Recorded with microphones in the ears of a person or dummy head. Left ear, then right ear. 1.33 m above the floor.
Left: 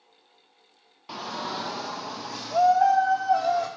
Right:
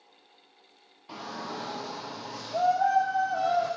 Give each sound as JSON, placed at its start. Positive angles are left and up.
{"t": 1.1, "sound": "a shout", "side_deg": 30, "distance_m": 0.7}